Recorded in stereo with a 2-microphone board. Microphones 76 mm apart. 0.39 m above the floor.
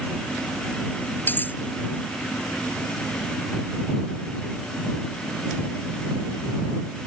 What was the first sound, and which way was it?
Cutlery clinking, 25° left (ahead or behind).